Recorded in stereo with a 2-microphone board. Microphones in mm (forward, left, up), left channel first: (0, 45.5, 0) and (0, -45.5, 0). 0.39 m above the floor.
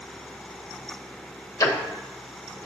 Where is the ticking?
45° left (ahead or behind), 0.8 m.